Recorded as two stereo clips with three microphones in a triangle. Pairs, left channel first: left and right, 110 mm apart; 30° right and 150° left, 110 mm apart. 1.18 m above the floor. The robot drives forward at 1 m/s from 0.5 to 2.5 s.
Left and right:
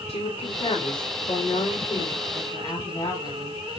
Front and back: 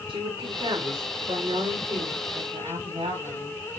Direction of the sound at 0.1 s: 110° left.